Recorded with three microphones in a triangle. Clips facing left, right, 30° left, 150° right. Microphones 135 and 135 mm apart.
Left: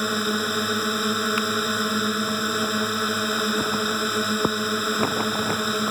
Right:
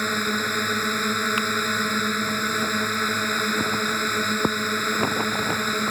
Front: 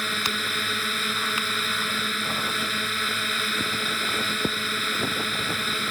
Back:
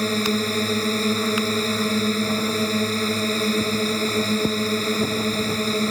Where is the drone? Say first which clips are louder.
Left 2 dB, back 10 dB; 170° left.